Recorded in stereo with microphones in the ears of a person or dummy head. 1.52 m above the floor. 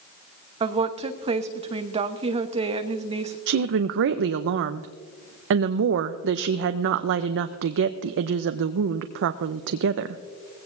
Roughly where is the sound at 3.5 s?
Right.